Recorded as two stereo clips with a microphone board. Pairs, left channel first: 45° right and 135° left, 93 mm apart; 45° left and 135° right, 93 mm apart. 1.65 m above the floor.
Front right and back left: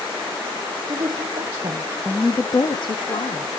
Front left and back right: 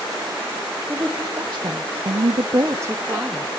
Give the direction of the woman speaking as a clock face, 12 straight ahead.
7 o'clock.